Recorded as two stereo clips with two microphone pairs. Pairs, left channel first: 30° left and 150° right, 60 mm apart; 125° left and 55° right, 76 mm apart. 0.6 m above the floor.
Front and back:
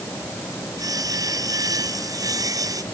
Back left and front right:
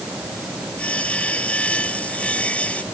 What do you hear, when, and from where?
0.8 s sawing: 160° right